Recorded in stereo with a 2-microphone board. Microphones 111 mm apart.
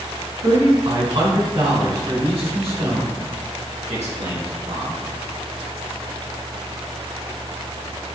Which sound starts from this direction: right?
A man speaking, at 0.4 s.